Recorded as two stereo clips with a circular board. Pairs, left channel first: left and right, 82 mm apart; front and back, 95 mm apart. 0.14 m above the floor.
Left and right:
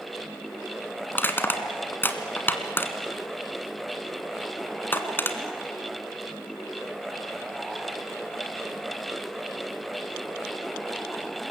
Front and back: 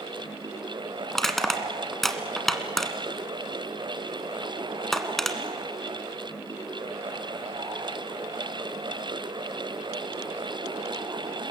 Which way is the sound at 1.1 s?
85° left.